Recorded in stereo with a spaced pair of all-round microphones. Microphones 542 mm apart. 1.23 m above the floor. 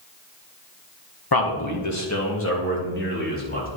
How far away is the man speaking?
About 1.3 m.